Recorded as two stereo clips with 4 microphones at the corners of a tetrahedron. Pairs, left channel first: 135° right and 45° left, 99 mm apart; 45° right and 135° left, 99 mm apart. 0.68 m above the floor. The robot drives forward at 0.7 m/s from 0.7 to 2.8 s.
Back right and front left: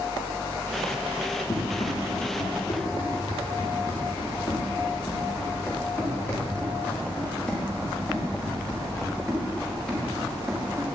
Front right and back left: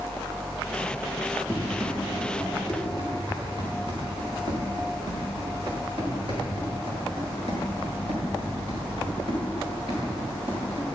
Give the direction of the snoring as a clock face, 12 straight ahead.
No snoring in this recording.